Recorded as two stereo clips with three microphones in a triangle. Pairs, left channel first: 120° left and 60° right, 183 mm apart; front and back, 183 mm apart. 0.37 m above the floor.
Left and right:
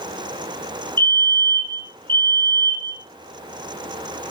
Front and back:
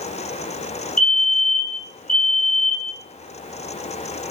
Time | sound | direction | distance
1.0 | a fire alarm | 40° left | 6.5 m